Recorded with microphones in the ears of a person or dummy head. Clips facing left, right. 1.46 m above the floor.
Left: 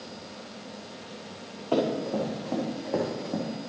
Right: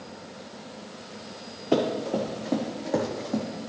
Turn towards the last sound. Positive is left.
turn(degrees=0)  # may be behind; listen again after turning